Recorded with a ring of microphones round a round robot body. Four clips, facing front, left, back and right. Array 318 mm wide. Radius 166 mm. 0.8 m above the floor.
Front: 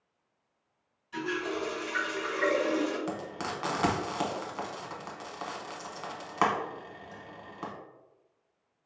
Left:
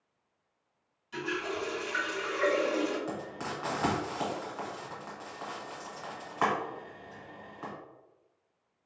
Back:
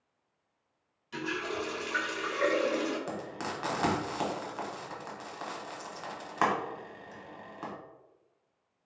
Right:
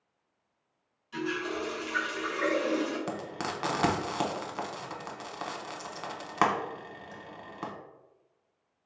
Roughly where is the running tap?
Behind.